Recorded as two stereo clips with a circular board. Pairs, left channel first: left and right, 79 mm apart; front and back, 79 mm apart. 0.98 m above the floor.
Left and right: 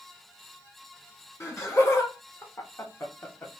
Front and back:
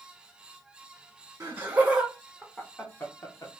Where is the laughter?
135° left, 1.1 m; by 3.5 s 35° left, 1.3 m.